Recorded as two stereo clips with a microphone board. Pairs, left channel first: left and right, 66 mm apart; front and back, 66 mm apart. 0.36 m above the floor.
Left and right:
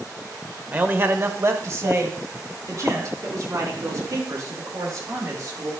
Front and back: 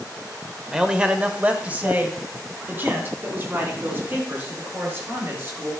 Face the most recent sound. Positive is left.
turn(degrees=-125)